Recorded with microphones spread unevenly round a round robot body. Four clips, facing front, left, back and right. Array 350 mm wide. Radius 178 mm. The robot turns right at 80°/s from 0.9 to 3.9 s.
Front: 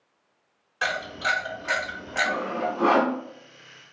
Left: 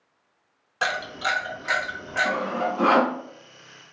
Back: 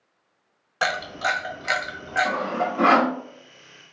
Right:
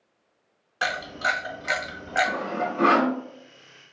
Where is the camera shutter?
160° left, 1.7 m; by 2.3 s 85° right, 1.7 m.